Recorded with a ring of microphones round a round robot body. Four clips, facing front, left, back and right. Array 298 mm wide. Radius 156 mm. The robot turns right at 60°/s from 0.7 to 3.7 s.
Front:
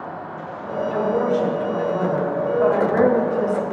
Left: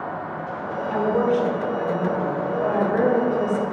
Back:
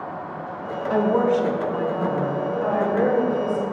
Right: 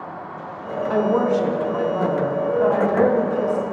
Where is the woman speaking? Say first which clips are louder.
Right 2 dB, back 2 dB; 120° right, 1.2 m; by 3.6 s 45° left, 1.2 m.